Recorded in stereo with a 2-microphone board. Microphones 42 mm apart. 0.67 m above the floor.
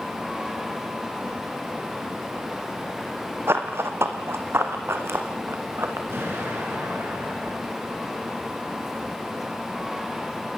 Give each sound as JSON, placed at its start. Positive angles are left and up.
{"t": 3.5, "sound": "running footsteps", "side_deg": -75, "distance_m": 2.5}
{"t": 6.1, "sound": "an explosion", "side_deg": -70, "distance_m": 8.0}